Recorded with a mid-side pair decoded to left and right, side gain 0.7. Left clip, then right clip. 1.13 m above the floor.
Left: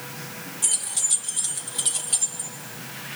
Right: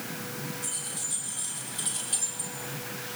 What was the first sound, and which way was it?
Keys jangling, 55° left.